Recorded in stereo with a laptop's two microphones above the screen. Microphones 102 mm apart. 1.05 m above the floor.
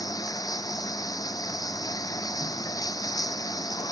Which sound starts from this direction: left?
Running water, at 0.0 s.